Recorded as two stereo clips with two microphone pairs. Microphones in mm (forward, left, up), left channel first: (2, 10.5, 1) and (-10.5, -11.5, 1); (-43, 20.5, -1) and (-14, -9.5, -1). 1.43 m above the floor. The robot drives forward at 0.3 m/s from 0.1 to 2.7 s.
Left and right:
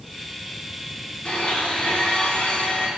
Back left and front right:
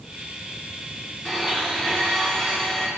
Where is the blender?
70° left, 3 m; by 2.9 s 75° left, 3 m.